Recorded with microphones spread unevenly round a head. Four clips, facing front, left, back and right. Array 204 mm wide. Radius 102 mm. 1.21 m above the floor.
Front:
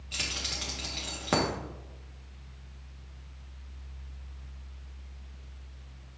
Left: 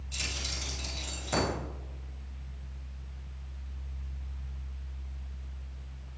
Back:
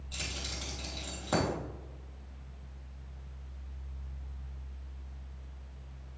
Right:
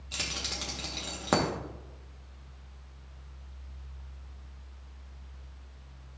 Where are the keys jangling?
65° right, 1.8 m.